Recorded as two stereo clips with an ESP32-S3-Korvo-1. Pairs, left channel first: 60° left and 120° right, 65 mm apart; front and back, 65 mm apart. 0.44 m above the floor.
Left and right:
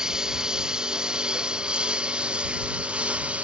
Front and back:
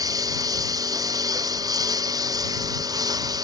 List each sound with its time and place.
0.0 s a lawn mower: 160° left; by 3.4 s 170° left